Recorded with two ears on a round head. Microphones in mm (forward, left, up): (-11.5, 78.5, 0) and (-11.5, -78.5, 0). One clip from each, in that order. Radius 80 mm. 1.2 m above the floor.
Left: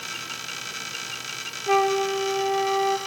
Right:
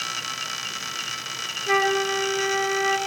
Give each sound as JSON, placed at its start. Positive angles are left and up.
{"t": 1.7, "sound": "a flute", "side_deg": -10, "distance_m": 3.5}